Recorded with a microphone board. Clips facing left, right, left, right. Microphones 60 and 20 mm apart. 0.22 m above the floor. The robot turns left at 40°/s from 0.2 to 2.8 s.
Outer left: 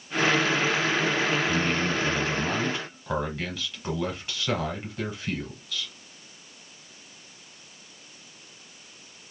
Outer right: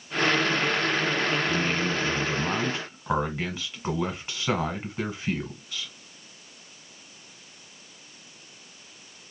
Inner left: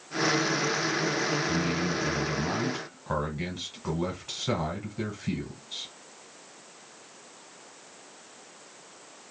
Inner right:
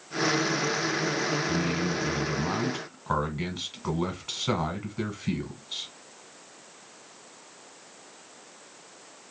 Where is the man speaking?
5° left (ahead or behind), 1.4 m; by 5.9 s 20° right (ahead or behind), 1.4 m.